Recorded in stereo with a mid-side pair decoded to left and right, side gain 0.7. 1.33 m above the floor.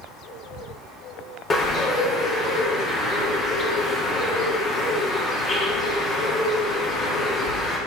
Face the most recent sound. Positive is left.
turn(degrees=25)